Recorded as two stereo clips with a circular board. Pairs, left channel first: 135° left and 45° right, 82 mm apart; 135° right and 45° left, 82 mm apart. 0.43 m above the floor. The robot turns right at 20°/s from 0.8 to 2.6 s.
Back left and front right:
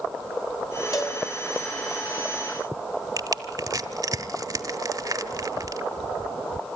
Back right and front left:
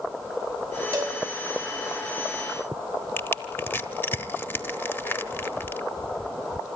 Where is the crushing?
75° right, 1.0 m.